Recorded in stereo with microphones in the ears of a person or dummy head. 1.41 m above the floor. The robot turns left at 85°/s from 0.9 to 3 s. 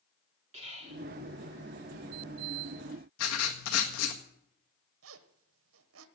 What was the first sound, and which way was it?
Whispering, 35° right (ahead or behind).